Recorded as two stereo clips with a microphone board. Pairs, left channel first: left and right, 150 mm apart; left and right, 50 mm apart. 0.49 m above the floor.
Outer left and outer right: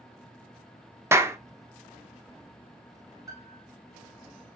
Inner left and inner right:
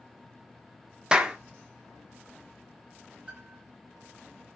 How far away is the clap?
About 0.6 m.